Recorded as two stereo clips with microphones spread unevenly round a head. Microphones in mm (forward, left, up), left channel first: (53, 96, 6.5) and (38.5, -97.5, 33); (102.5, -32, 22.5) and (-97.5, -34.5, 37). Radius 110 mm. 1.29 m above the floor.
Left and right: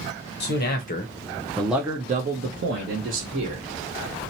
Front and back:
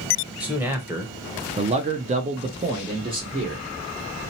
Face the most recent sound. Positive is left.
turn(degrees=-110)